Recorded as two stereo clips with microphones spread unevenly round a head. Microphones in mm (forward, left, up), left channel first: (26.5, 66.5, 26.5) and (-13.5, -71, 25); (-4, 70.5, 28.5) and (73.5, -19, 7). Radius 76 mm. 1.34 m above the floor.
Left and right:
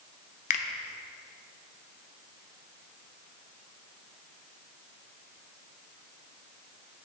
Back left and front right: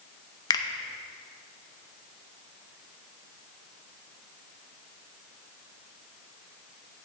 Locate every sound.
0.5 s a finger snap: 100° left, 0.6 m